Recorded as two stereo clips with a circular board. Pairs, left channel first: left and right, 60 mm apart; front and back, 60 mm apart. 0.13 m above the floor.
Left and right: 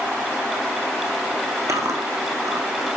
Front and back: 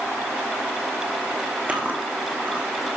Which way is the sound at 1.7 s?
120° right.